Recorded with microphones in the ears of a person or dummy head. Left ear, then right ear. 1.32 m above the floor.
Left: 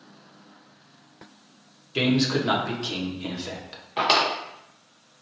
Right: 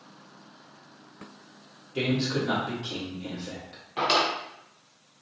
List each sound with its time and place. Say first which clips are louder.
1.9 s a man speaking: left 5 dB; 45° left (ahead or behind), 1.1 m
4.0 s a drawer: left 3 dB; 15° left (ahead or behind), 0.7 m